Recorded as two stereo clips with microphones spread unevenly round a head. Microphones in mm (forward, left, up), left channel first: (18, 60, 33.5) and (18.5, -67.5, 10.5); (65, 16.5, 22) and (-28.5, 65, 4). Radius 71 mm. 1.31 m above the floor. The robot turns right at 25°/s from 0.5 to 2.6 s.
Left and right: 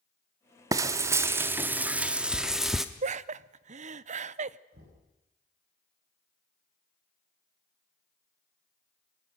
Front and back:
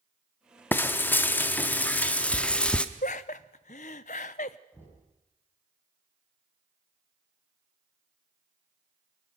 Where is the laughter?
65° right, 0.7 m.